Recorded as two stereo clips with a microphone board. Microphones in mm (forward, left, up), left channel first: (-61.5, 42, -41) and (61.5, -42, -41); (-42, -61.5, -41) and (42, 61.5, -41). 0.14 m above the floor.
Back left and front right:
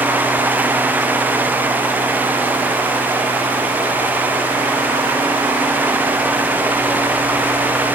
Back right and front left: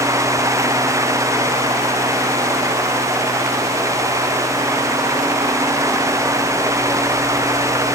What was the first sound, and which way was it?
Only background noise.